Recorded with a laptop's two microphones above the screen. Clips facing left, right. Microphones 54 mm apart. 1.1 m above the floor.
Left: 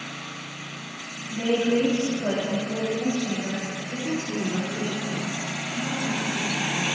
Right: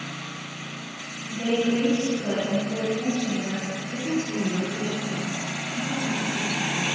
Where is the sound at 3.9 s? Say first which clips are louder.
Right 2 dB; 40° left (ahead or behind), 2.5 m.